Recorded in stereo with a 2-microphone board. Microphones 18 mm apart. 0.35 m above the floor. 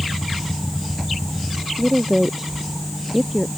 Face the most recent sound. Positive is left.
turn(degrees=-10)  # may be behind; listen again after turning